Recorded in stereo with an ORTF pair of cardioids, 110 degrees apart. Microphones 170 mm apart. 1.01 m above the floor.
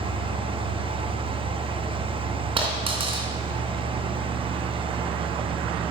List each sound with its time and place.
0.0 s a fan: 30° right, 1.0 m
2.6 s a dropped coin: 30° right, 3.5 m